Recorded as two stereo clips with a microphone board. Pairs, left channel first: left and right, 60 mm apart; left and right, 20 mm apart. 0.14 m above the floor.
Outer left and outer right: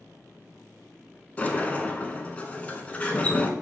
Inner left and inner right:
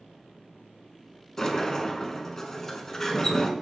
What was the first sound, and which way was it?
A sliding door, 25° left (ahead or behind).